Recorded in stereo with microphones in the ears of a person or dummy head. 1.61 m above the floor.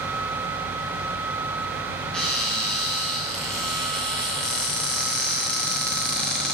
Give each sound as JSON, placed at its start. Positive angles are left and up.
{"t": 2.1, "sound": "a cupboard door", "side_deg": 0, "distance_m": 1.1}